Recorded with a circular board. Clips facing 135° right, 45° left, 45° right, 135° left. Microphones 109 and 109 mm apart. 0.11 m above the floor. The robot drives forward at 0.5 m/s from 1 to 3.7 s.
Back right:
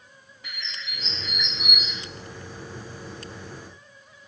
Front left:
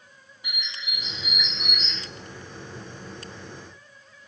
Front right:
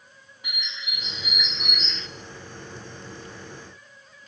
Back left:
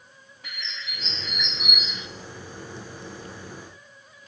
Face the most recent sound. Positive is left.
turn(degrees=180)